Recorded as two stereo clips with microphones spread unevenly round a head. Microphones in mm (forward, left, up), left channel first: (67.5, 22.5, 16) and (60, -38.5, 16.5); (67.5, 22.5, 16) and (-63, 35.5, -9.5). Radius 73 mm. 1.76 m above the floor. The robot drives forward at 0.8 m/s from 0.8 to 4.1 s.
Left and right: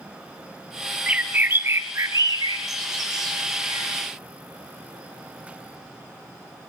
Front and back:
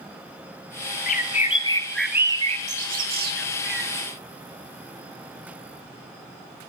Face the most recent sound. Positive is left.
turn(degrees=-165)